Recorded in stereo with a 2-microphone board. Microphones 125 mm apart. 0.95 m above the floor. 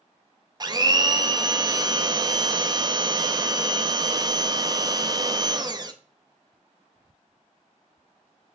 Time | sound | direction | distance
0.6 | a blender | 30° right (ahead or behind) | 0.8 m